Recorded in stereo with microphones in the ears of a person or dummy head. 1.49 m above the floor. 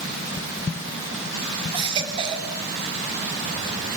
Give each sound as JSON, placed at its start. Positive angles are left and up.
{"t": 1.7, "sound": "a baby crying", "side_deg": -30, "distance_m": 3.0}